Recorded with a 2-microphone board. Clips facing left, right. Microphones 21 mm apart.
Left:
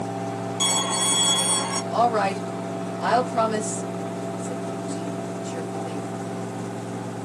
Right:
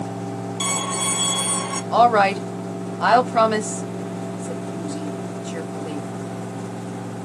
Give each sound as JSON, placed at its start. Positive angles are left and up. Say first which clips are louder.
{"t": 0.6, "sound": "a violin", "louder": "left 1 dB", "side_deg": -20, "distance_m": 1.6}
{"t": 1.9, "sound": "a woman speaking", "louder": "right 7 dB", "side_deg": -65, "distance_m": 0.8}